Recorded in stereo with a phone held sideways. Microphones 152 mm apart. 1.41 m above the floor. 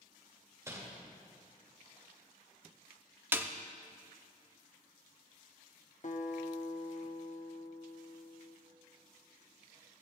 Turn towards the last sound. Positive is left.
turn(degrees=55)  # may be behind; listen again after turning